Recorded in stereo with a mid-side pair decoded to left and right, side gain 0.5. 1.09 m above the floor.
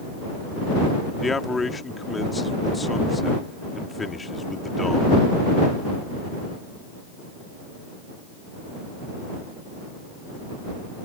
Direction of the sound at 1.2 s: 25° left.